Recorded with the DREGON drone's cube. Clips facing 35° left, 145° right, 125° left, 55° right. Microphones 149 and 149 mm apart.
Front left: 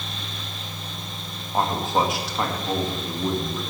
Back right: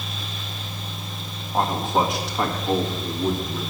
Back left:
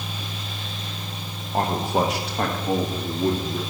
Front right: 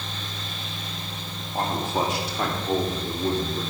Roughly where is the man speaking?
Behind left.